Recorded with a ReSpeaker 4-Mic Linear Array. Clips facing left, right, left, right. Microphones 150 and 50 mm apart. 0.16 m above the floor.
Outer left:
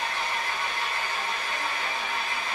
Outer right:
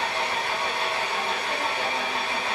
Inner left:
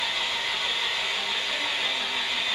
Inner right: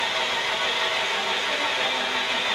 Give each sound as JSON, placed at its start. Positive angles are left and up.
{"t": 0.0, "sound": "an engine running", "side_deg": -65, "distance_m": 2.0}